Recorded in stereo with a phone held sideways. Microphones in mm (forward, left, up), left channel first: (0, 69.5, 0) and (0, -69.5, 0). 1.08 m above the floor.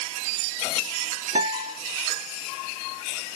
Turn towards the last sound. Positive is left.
turn(degrees=-60)  # may be behind; listen again after turning